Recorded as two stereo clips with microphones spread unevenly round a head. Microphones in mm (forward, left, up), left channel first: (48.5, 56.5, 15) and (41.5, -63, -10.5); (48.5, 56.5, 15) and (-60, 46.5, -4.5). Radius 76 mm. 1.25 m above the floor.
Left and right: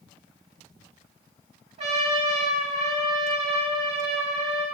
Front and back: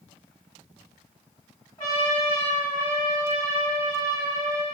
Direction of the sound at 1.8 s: 60° right.